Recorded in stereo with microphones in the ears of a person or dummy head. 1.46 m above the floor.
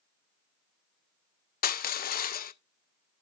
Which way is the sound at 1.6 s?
50° left (ahead or behind).